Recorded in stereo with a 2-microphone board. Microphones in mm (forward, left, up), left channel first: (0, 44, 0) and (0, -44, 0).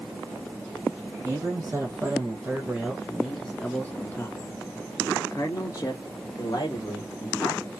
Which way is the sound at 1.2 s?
30° right (ahead or behind).